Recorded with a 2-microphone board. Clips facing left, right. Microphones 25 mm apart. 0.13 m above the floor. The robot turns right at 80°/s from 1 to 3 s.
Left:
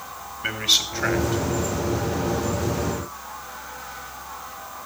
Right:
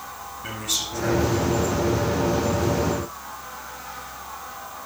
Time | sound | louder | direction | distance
0.4 | a man speaking | left 7 dB | 50° left (ahead or behind) | 1.8 m